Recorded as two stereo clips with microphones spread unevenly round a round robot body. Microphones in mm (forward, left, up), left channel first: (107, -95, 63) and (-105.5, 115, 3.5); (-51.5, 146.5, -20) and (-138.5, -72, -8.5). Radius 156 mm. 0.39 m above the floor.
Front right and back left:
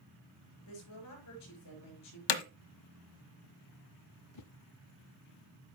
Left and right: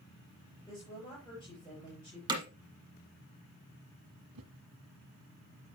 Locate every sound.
0.7 s a woman speaking: 5° right, 6.5 m
2.3 s hammering: 35° right, 1.2 m
4.3 s a whoosh: 80° right, 0.6 m